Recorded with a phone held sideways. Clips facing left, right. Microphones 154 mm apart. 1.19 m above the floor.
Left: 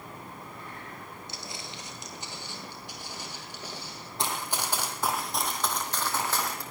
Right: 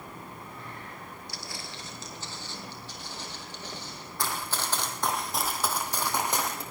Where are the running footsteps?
20° left (ahead or behind), 2 m; by 6.6 s 20° right (ahead or behind), 2.5 m.